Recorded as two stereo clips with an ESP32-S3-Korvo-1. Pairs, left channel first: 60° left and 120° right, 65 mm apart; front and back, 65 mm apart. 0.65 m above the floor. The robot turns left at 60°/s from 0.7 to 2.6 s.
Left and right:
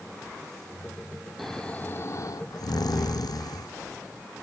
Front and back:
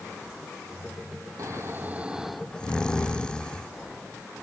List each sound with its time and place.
1.4 s snoring: 150° left, 0.5 m; by 3.7 s 75° left, 0.5 m